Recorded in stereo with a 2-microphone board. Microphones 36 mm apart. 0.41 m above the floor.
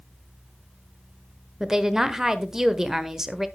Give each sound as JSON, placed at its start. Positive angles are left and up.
{"t": 1.6, "sound": "a woman speaking", "side_deg": -15, "distance_m": 1.2}